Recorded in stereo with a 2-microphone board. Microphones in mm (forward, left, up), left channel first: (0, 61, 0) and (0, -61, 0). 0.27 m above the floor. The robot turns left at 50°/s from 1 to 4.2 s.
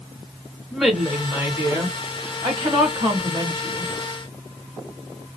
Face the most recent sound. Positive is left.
turn(degrees=-165)